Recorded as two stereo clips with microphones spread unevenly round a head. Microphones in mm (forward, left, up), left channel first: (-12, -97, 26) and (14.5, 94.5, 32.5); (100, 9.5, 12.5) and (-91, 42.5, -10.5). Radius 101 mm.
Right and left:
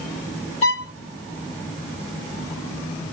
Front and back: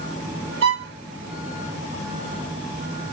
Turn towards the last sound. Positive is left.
turn(degrees=-155)